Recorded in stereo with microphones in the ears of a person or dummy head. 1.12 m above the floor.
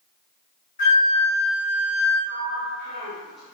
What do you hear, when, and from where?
0.8 s a flute: 45° left (ahead or behind), 1.7 m
2.3 s a sliding door: centre (ahead or behind), 0.8 m